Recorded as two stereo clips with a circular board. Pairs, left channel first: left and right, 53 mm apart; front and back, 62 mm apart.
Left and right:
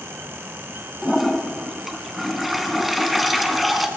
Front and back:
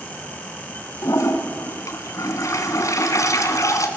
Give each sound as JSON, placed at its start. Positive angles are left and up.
{"t": 1.0, "sound": "a toilet flushing", "azimuth_deg": 0, "distance_m": 1.9}